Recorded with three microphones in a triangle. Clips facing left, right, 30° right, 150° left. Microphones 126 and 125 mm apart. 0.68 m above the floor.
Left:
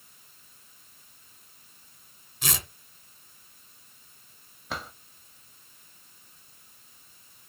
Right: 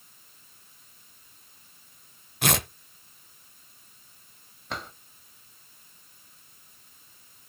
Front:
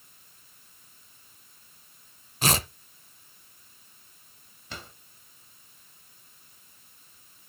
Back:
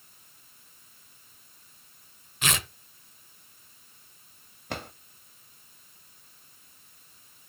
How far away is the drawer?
About 1.0 m.